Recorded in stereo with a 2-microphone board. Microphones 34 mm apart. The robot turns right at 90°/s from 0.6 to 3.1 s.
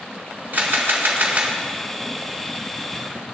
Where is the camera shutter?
115° right, 1.8 m; by 1.5 s 30° right, 1.8 m.